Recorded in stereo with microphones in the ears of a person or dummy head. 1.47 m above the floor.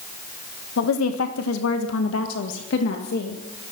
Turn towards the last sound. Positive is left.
turn(degrees=65)  # may be behind; listen again after turning